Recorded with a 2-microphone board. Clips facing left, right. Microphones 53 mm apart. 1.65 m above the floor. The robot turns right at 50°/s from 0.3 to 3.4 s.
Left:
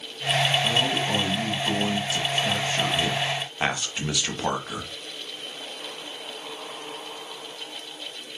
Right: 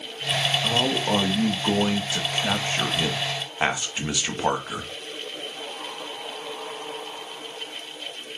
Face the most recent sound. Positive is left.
turn(degrees=-15)